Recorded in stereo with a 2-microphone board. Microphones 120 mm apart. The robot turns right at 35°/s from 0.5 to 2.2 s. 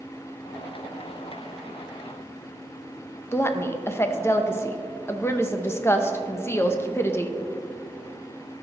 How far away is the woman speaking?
About 0.7 m.